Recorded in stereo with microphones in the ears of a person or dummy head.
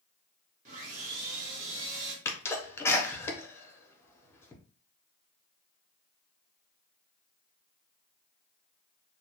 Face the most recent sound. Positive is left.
turn(degrees=15)  # may be behind; listen again after turning